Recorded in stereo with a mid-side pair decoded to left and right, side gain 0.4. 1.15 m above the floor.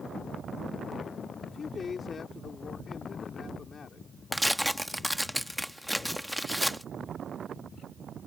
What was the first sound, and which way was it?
A man speaking, 50° left.